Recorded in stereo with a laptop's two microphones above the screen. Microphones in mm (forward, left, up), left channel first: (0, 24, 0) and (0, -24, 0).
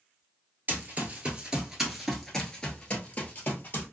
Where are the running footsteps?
35° right (ahead or behind), 1.2 m; by 3.9 s 45° left (ahead or behind), 1.4 m.